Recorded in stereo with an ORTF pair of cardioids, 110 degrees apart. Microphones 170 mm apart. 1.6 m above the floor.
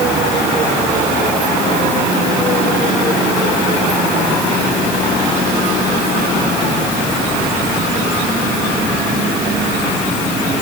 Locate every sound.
Only background noise.